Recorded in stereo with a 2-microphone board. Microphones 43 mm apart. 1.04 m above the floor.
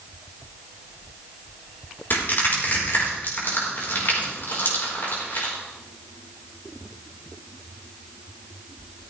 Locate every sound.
2.1 s crushing: 55° left (ahead or behind), 4.5 m